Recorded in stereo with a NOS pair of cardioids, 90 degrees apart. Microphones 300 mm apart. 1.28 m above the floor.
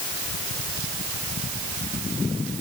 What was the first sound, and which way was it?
Only background noise.